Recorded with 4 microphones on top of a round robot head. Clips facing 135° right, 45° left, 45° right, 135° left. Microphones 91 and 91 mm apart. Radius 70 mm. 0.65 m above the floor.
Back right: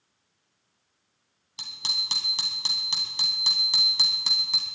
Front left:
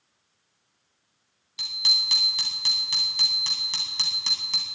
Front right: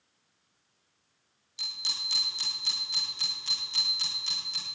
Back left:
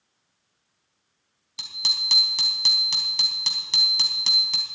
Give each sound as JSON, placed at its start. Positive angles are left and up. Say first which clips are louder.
{"t": 1.6, "sound": "a bicycle bell", "louder": "front left 3 dB, back left 6 dB", "azimuth_deg": 170, "distance_m": 4.0}